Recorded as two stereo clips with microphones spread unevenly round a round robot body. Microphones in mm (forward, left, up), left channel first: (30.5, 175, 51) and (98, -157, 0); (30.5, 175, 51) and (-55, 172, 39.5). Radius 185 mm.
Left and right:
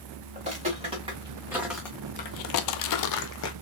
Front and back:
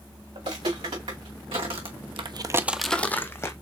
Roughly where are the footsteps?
Behind right.